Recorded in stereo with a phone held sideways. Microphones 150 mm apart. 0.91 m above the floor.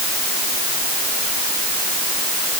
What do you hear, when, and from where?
Only background noise.